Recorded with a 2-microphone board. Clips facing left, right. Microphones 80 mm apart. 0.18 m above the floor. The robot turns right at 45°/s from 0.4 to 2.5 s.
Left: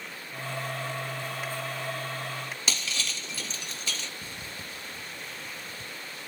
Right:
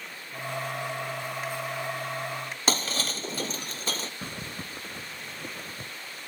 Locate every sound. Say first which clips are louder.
2.7 s breaking glass: right 8 dB; 40° right (ahead or behind)
4.2 s a zipper: right 3 dB; 55° right (ahead or behind)